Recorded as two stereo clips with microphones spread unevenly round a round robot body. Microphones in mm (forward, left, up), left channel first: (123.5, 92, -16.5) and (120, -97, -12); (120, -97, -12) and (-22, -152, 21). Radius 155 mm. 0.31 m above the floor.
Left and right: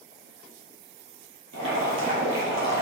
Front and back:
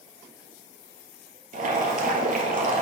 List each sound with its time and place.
1.5 s boiling: 135° right, 1.9 m